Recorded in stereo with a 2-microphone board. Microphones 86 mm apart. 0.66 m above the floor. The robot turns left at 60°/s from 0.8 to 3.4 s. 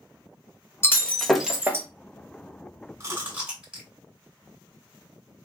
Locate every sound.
0.8 s breaking glass: 30° left, 1.0 m; by 1.9 s 30° right, 1.0 m
3.0 s chewing: 35° right (ahead or behind), 2 m; by 3.9 s 10° right (ahead or behind), 2 m